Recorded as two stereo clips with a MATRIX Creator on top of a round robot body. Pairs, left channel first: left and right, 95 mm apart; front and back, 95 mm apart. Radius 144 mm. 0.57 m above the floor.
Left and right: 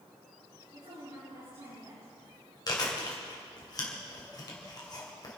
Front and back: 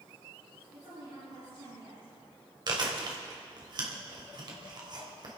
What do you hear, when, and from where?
0.7 s a woman speaking: 120° right, 7 m
2.7 s chewing: 140° left, 2.5 m